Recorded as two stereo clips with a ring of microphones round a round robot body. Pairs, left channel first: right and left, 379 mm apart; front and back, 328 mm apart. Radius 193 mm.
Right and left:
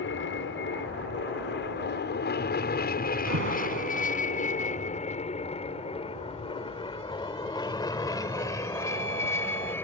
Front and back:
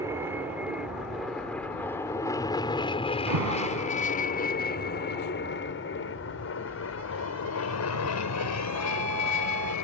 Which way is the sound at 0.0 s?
105° right.